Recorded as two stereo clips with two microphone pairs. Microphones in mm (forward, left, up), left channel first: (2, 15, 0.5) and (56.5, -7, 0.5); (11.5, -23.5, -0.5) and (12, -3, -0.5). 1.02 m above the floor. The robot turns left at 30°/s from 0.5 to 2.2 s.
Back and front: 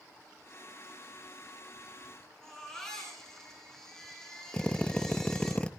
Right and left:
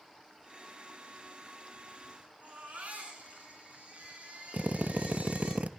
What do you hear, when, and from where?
2.4 s a baby crying: 75° left, 9 m
4.5 s a drill: 85° left, 0.8 m